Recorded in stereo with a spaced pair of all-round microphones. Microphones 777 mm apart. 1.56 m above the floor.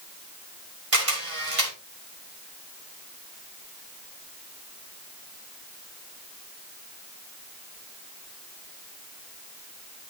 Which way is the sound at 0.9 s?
40° right (ahead or behind).